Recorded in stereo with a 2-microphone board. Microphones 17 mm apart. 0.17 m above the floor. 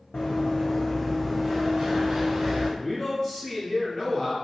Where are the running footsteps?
65° left (ahead or behind), 0.9 m; by 2.7 s 35° right (ahead or behind), 1.4 m.